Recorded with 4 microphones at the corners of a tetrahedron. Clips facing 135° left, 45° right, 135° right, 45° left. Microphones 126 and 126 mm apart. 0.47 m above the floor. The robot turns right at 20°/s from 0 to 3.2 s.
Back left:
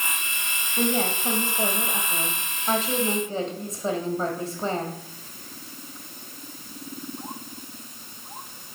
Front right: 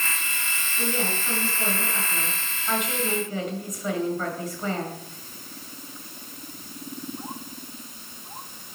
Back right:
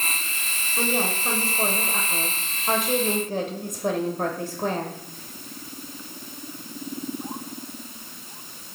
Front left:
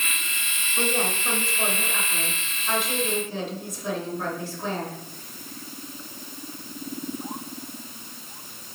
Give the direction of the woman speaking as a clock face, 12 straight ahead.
7 o'clock.